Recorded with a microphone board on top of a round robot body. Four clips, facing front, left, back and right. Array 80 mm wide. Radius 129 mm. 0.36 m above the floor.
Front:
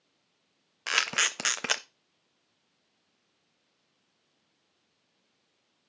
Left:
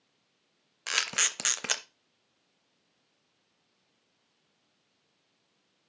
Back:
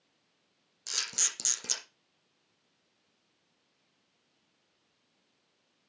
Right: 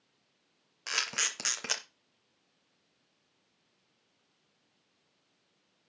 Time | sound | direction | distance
0.9 | a camera shutter | 10° left | 0.7 m